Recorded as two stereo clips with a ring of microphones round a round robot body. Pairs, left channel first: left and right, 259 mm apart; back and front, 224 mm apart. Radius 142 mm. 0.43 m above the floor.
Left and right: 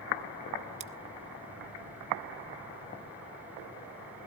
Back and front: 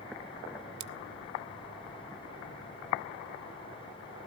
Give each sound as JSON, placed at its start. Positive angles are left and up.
{"t": 0.8, "sound": "scissors", "azimuth_deg": -25, "distance_m": 0.7}